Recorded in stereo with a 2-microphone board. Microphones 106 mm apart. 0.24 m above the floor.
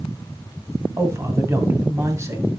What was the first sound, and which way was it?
A man speaking, 25° right (ahead or behind).